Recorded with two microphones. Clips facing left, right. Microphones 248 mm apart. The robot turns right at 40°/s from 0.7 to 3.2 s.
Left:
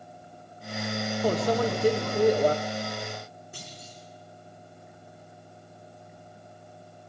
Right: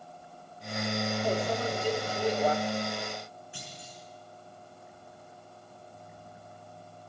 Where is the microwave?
85° left, 0.7 m; by 2.5 s 135° left, 0.7 m.